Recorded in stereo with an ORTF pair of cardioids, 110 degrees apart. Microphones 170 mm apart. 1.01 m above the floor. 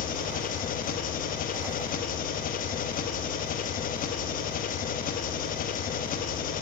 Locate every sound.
0.0 s an engine running: 55° left, 0.9 m